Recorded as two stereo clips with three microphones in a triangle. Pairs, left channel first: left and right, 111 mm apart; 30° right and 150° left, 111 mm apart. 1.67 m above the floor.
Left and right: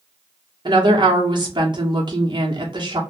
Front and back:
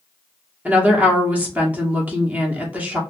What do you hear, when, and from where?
0.7 s a woman speaking: 135° right, 0.9 m